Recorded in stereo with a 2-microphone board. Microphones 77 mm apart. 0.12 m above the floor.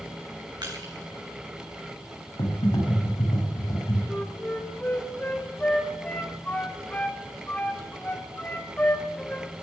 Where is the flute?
20° left (ahead or behind), 1.9 m.